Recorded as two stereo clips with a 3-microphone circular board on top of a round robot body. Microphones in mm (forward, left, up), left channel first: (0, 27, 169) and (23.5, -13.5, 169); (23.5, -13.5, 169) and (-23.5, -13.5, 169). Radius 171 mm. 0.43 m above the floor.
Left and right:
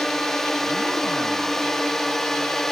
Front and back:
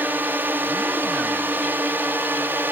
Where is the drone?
160° right.